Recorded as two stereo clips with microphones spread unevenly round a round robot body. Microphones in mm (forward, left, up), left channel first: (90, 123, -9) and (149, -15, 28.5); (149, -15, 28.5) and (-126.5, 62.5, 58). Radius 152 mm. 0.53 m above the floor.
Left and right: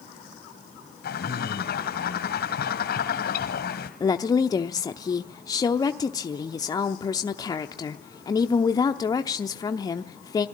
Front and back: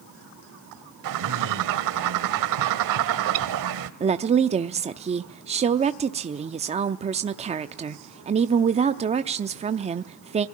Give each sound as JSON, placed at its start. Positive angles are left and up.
{"t": 1.0, "sound": "a bird", "azimuth_deg": 145, "distance_m": 1.6}
{"t": 4.0, "sound": "a woman speaking", "azimuth_deg": 100, "distance_m": 0.8}